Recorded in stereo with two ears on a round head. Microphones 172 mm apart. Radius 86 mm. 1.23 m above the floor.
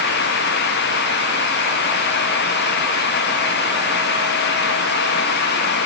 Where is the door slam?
I don't hear a door slam.